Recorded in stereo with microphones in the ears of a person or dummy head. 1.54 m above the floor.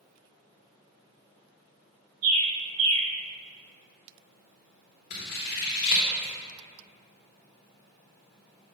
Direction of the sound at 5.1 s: 45° left (ahead or behind).